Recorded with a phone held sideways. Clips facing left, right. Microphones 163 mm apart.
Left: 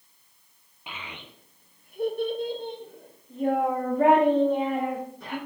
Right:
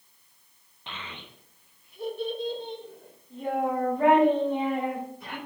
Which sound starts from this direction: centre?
A child speaking, at 0.9 s.